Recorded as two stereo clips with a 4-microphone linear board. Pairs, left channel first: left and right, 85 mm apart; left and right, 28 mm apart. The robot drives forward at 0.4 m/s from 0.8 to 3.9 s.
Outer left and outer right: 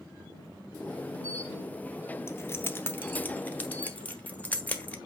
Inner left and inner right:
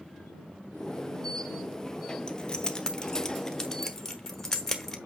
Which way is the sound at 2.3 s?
30° left (ahead or behind).